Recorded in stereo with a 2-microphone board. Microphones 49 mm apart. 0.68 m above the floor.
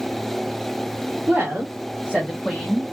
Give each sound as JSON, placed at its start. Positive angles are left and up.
{"t": 1.3, "sound": "a woman speaking", "side_deg": -50, "distance_m": 2.5}